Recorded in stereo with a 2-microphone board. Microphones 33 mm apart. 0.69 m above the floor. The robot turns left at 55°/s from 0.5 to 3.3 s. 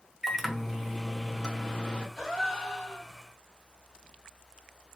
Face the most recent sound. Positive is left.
turn(degrees=140)